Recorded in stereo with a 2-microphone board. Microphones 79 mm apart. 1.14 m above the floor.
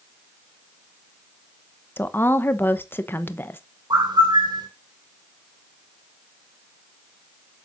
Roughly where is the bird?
Right.